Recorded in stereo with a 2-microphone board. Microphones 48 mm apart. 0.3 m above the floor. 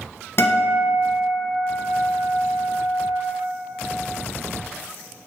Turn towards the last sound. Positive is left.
turn(degrees=55)  # may be behind; listen again after turning